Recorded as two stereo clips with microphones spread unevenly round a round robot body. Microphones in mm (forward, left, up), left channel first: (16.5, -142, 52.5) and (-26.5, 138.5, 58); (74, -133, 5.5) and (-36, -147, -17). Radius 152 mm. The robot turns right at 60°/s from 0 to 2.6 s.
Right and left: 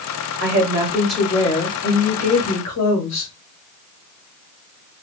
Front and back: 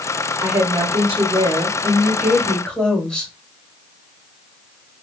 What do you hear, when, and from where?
0.4 s a woman speaking: 145° left, 1.6 m; by 3.3 s 80° right, 1.6 m